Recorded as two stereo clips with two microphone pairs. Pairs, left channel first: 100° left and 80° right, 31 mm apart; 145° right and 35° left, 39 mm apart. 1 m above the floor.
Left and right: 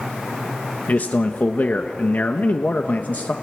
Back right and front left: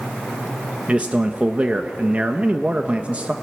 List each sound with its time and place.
0.9 s a man speaking: 85° left, 1.2 m